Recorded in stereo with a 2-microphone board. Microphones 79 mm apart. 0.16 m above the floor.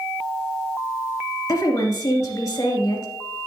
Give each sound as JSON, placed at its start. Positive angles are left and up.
{"t": 1.5, "sound": "a woman speaking", "side_deg": 40, "distance_m": 2.5}